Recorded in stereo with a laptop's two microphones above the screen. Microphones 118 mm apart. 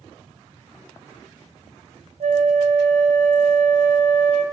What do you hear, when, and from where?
2.2 s a flute: 65° right (ahead or behind), 0.6 m